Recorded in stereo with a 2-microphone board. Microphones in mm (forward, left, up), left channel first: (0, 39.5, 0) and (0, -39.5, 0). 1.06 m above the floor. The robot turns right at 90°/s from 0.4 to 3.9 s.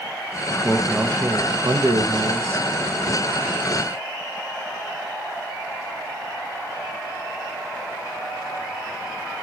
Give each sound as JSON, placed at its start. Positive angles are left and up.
{"t": 0.5, "sound": "a man speaking", "azimuth_deg": 140, "distance_m": 0.5}